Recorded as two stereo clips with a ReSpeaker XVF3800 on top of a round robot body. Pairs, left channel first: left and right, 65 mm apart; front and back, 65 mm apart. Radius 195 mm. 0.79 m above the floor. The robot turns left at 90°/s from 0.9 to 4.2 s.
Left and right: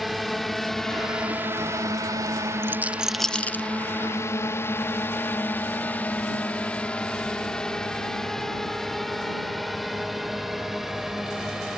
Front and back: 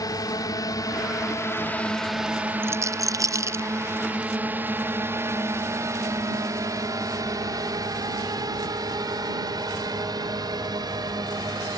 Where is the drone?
Straight ahead; by 11.8 s 175° right.